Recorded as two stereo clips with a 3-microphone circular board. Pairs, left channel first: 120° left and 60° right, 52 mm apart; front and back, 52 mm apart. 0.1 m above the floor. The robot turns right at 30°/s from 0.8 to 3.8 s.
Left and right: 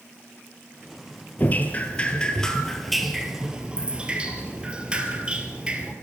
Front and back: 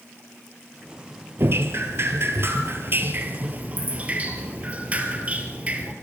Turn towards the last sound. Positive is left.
turn(degrees=-125)